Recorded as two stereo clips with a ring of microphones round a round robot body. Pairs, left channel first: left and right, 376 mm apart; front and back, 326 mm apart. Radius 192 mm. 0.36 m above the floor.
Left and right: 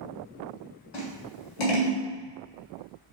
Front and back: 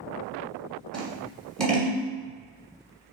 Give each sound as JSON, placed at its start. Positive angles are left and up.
{"t": 0.9, "sound": "scissors", "azimuth_deg": 90, "distance_m": 1.3}